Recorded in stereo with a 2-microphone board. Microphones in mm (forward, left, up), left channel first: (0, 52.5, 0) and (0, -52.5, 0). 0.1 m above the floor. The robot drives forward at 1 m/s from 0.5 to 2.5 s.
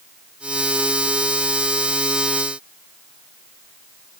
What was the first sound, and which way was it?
Only background noise.